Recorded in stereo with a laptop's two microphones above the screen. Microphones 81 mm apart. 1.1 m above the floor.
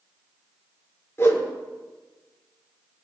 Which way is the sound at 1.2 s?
35° left (ahead or behind).